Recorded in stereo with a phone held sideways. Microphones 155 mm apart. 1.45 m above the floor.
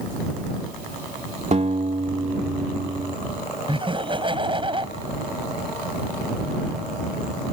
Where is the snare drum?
I don't hear a snare drum.